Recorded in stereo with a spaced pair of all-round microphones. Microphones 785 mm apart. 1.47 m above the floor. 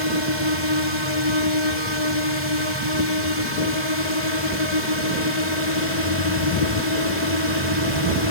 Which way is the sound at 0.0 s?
65° left (ahead or behind).